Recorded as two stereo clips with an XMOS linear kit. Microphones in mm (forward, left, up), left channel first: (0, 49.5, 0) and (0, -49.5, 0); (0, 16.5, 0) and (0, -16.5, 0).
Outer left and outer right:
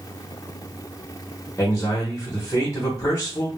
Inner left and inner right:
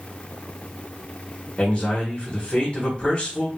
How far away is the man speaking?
About 1.0 m.